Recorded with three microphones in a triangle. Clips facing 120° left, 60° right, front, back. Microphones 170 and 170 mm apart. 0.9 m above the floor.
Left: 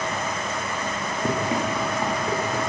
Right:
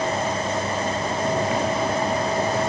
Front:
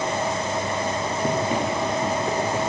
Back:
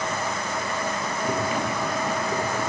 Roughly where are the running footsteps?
Ahead left.